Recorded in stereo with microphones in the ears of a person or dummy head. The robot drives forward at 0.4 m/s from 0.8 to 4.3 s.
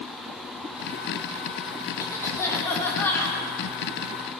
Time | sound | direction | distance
2.0 | a cough | 20° left (ahead or behind) | 2.5 m